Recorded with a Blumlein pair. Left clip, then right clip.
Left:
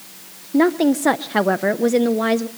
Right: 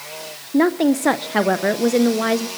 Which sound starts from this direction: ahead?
A woman speaking, at 0.5 s.